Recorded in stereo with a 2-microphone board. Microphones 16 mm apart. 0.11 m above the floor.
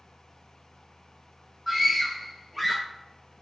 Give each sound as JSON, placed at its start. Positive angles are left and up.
{"t": 1.7, "sound": "a scream", "side_deg": -5, "distance_m": 5.0}